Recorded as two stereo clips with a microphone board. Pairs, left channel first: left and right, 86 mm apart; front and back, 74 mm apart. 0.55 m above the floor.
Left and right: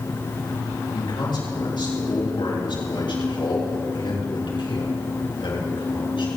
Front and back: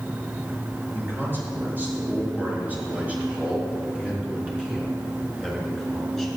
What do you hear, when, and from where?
0.9 s a man speaking: 115° left, 6 m; by 6.3 s 90° left, 5.5 m